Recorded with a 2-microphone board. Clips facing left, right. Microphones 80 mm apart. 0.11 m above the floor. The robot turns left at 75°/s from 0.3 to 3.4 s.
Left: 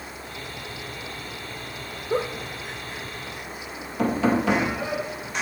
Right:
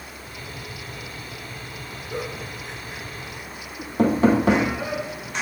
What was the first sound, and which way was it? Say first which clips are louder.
A giggle: left 6 dB; 40° left (ahead or behind).